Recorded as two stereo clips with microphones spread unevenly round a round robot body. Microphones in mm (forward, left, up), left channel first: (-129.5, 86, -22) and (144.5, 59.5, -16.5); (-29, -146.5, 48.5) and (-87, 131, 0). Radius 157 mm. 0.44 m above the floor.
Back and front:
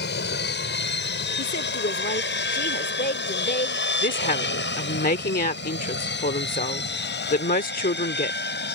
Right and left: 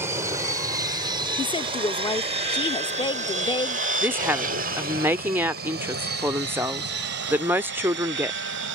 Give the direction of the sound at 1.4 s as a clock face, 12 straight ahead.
5 o'clock.